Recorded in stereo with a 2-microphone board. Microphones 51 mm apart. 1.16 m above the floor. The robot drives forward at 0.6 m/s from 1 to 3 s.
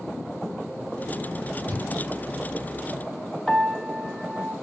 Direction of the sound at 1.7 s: 45° right (ahead or behind).